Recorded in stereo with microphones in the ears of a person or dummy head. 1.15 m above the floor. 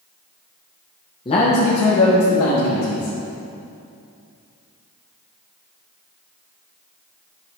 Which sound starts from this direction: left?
A man speaking, at 1.2 s.